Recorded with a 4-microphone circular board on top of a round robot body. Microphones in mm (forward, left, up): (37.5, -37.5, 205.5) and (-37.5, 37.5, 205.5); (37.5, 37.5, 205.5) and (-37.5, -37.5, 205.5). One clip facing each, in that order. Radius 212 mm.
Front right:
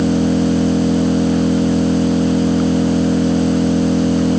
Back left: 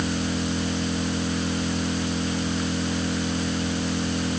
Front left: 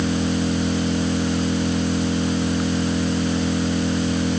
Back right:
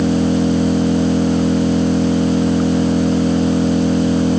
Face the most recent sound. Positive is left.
turn(degrees=-85)